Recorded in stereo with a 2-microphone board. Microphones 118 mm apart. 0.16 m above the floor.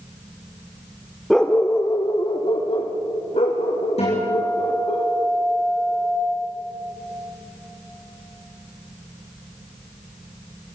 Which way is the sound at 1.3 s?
Centre (ahead or behind).